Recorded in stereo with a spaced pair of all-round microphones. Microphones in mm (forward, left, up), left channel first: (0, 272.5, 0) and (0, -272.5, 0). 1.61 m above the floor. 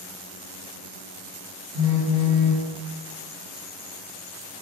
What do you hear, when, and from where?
1.7 s a phone buzzing: 70° right (ahead or behind), 1.2 m